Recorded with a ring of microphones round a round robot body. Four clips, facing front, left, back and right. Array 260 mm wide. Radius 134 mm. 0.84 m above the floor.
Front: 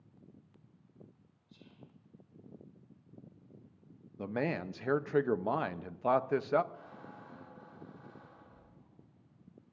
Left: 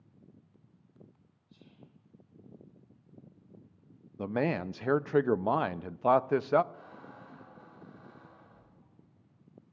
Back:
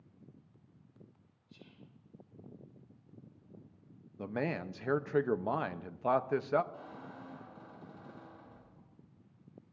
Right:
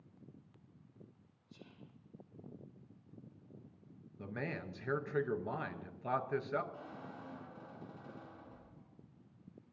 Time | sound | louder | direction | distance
1.5 | whispering | even, even | 110° right | 3 m
4.2 | a man speaking | left 12 dB, front 1 dB | 85° left | 0.5 m
6.7 | a squeak | even, back 2 dB | 145° right | 6 m